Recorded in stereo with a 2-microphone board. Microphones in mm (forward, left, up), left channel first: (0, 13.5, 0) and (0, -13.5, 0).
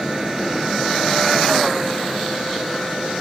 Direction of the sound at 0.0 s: 15° right (ahead or behind).